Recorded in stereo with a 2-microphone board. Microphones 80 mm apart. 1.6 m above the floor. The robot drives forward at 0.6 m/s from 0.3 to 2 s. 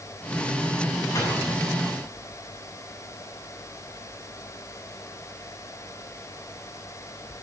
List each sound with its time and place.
1.1 s a gunshot: 35° left (ahead or behind), 9 m